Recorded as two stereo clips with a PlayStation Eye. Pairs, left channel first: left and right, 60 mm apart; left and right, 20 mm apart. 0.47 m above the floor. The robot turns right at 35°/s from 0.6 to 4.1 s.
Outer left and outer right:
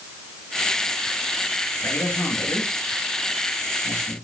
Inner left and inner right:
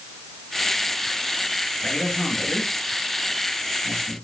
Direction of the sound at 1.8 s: 50° left (ahead or behind).